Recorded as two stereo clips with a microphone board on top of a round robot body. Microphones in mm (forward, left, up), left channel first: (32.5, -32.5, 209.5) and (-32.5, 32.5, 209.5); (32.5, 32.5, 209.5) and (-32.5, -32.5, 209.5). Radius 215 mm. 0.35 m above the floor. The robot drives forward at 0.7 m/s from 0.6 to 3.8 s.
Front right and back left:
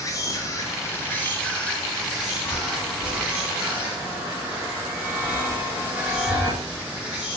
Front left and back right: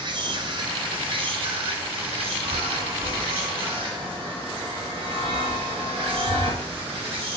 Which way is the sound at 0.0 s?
100° right.